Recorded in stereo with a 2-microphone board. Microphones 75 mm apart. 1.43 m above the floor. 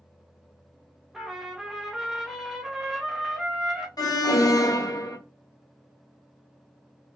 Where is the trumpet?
5° right (ahead or behind), 0.6 m.